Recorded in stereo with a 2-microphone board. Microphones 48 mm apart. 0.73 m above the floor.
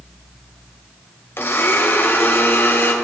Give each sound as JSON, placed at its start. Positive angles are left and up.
{"t": 1.4, "sound": "a blender", "side_deg": 50, "distance_m": 1.4}